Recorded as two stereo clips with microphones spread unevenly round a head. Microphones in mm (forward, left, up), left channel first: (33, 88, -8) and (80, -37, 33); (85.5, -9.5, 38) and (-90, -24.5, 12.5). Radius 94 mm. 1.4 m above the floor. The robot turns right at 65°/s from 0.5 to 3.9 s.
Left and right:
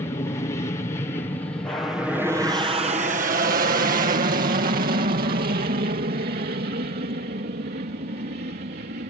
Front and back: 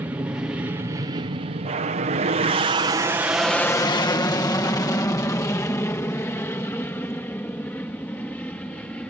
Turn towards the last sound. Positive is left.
turn(degrees=-80)